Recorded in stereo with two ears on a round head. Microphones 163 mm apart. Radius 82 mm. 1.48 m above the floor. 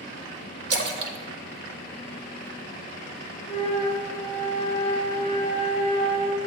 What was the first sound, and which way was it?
A splash, 60° right (ahead or behind).